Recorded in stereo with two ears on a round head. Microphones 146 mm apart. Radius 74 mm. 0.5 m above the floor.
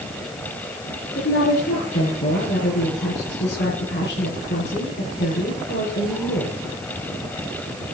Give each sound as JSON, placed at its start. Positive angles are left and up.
{"t": 1.1, "sound": "a woman speaking", "side_deg": 80, "distance_m": 8.0}